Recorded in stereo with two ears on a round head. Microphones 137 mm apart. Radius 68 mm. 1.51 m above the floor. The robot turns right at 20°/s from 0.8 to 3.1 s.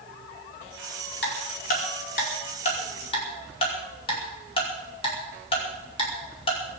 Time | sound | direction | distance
1.2 | ticking | 75° left (ahead or behind) | 5 m